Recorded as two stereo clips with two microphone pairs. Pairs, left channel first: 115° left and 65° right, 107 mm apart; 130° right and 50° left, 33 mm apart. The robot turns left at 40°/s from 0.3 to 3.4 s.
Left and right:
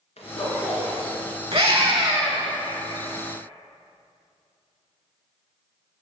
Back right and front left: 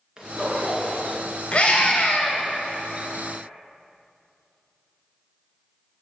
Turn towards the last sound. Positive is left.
turn(degrees=-150)